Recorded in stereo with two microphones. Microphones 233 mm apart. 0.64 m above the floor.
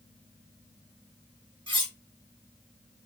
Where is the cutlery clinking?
20° right (ahead or behind), 2 m.